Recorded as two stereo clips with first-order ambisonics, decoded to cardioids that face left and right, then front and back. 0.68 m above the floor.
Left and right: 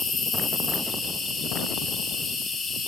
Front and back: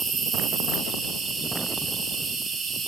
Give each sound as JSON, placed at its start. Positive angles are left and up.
{"t": 0.0, "sound": "an insect", "azimuth_deg": 130, "distance_m": 1.2}